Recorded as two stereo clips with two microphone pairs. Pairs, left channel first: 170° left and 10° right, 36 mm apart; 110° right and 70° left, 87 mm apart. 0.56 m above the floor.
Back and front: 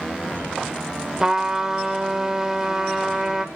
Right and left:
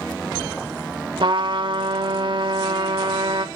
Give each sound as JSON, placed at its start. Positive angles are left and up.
{"t": 1.2, "sound": "a trumpet", "azimuth_deg": 60, "distance_m": 1.1}